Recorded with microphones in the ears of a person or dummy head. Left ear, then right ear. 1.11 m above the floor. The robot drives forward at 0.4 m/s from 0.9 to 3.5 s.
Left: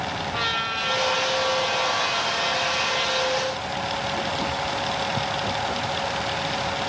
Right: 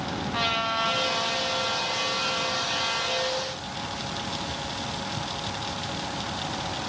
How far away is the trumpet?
About 1.3 m.